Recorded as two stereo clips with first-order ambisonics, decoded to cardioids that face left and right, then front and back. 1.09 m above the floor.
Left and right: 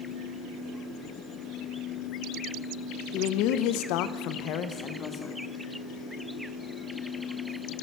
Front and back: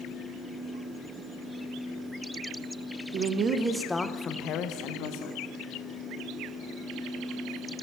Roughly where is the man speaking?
Behind left.